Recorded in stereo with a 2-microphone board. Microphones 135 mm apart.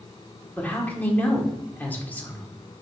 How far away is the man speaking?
About 1.7 m.